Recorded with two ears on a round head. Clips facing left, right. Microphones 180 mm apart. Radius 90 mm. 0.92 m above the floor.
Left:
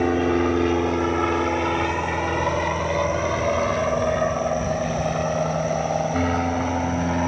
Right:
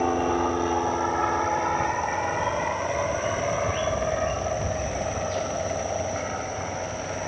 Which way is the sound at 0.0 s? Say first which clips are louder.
Left 4 dB; 25° left (ahead or behind).